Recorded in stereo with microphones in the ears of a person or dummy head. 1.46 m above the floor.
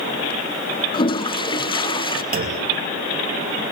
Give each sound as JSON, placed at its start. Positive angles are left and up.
{"t": 0.9, "sound": "a toilet flushing", "side_deg": 30, "distance_m": 0.6}
{"t": 2.3, "sound": "a clunk", "side_deg": -45, "distance_m": 2.5}